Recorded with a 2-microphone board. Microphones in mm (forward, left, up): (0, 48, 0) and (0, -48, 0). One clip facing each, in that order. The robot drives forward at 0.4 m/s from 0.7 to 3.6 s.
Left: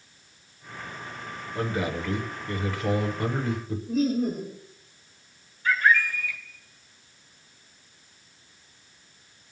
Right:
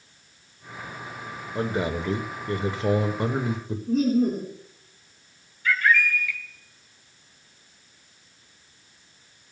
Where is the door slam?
I don't hear a door slam.